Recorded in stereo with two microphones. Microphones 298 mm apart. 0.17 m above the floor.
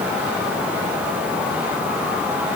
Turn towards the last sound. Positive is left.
No sound to turn to.